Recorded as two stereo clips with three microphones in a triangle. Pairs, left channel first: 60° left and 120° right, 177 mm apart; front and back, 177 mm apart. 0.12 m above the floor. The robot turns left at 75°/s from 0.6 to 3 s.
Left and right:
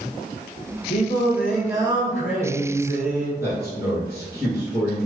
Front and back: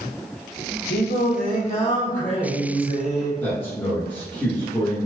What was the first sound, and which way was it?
Singing, 15° left.